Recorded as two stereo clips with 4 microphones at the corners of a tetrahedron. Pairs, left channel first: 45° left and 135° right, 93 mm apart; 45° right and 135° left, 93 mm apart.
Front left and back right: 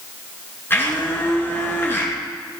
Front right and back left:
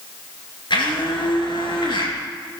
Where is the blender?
20° right, 4 m.